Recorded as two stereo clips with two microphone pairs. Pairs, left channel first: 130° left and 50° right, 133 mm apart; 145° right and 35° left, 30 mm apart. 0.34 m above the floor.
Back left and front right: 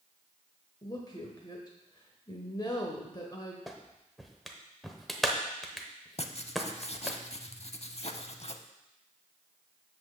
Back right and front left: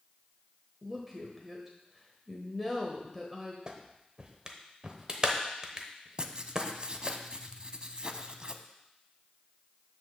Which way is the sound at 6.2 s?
90° left.